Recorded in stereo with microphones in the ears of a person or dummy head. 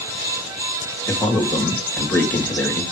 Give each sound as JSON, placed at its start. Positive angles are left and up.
{"t": 1.1, "sound": "a man speaking", "side_deg": 10, "distance_m": 1.7}